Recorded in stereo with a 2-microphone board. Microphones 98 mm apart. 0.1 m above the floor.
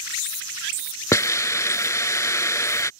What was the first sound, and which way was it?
A hiss, 30° left (ahead or behind).